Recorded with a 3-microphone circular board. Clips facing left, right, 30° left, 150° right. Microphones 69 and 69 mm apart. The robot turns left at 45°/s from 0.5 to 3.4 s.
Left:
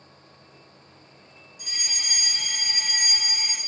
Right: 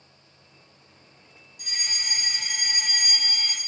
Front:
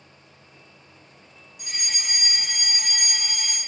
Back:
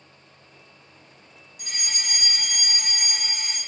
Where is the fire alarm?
120° right, 2.5 m; by 3.6 s 160° left, 2.5 m.